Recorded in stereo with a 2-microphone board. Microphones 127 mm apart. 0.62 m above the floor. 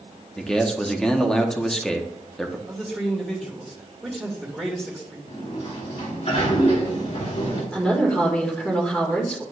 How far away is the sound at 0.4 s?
About 0.9 m.